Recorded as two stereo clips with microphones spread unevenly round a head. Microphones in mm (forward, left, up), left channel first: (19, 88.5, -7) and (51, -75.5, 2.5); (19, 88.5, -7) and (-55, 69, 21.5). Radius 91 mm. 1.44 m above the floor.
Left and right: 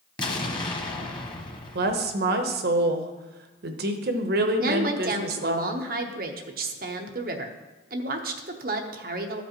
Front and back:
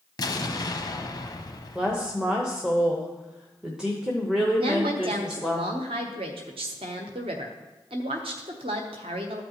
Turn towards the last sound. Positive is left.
turn(degrees=-120)